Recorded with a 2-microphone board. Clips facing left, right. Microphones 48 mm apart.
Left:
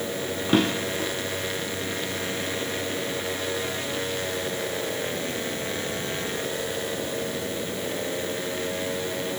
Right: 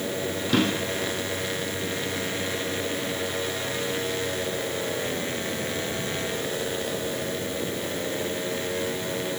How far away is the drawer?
About 2.5 m.